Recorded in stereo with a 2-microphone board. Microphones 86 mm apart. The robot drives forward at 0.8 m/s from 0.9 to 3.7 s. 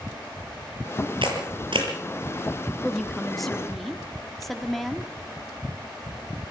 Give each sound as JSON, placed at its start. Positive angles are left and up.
{"t": 1.2, "sound": "a camera shutter", "side_deg": -85, "distance_m": 7.0}
{"t": 2.8, "sound": "a woman speaking", "side_deg": 0, "distance_m": 1.4}